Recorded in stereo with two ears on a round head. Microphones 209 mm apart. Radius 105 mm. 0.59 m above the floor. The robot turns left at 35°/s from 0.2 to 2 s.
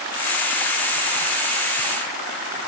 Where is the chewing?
I don't hear chewing.